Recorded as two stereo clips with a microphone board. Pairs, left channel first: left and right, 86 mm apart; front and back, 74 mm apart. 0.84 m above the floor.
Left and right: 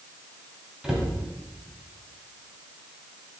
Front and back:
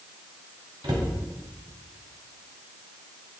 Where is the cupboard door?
175° right, 1.6 m.